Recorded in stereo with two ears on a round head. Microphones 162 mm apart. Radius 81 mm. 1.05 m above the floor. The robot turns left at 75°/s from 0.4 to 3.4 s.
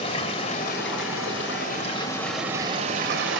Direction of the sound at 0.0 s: 145° left.